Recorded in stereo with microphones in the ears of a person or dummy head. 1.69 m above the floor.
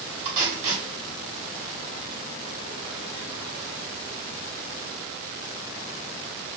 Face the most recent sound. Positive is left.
turn(degrees=-40)  # may be behind; listen again after turning